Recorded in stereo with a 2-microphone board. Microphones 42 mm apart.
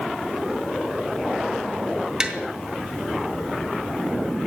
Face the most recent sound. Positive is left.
turn(degrees=-20)  # may be behind; listen again after turning